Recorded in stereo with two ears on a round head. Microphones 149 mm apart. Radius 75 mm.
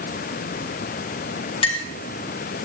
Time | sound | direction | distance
1.6 | a clink | 35° left (ahead or behind) | 1.4 m